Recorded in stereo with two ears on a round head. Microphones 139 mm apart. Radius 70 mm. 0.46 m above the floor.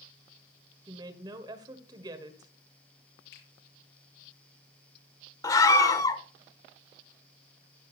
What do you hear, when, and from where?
0.9 s a woman speaking: 30° right (ahead or behind), 1.7 m
3.3 s a finger snap: 85° left, 6 m
5.4 s a scream: 25° left (ahead or behind), 1.3 m